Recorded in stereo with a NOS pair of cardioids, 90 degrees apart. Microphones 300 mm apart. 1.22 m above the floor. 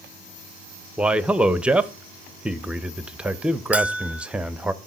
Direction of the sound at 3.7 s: 5° right.